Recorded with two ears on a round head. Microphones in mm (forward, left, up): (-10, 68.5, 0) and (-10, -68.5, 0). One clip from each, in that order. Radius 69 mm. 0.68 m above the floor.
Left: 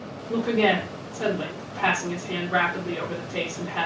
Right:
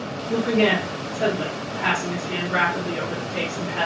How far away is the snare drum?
No snare drum in this recording.